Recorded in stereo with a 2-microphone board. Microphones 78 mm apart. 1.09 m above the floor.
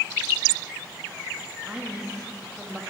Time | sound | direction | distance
1.7 | a woman speaking | 10° right (ahead or behind) | 2.0 m